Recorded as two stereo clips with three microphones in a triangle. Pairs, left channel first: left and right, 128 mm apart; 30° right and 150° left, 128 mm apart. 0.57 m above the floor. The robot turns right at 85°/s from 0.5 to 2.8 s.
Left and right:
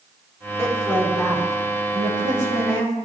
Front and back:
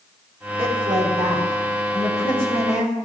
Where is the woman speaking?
130° left, 7 m; by 3.0 s 45° right, 7 m.